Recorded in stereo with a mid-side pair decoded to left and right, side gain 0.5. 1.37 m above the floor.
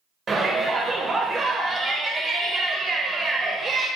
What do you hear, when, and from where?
0.3 s a shout: 30° right, 0.7 m